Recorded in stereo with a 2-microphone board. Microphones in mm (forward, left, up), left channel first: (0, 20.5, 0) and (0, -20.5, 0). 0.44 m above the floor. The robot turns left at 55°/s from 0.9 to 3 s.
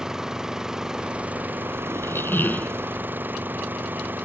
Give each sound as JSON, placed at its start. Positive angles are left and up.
{"t": 0.0, "sound": "an engine running", "azimuth_deg": -10}
{"t": 1.9, "sound": "a squeak", "azimuth_deg": 85}